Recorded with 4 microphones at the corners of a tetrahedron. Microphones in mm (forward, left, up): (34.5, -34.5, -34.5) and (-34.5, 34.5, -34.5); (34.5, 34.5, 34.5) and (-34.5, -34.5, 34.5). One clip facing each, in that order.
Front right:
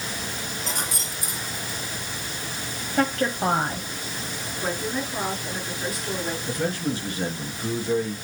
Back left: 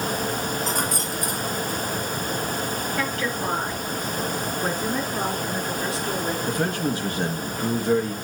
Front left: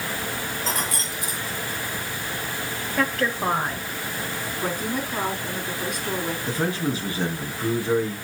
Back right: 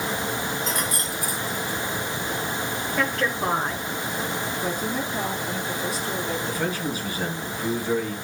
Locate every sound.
0.6 s keys jangling: 95° left, 1.6 m; by 1.8 s 120° left, 3 m
3.0 s a woman speaking: 35° right, 1.2 m
4.6 s a woman speaking: 75° left, 3 m
6.5 s a man speaking: 105° left, 3 m